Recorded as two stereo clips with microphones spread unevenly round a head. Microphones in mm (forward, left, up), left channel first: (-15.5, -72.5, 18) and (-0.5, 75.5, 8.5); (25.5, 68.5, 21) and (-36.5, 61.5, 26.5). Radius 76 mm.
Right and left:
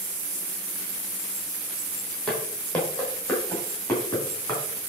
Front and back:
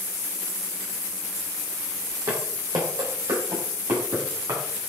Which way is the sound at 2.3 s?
Straight behind.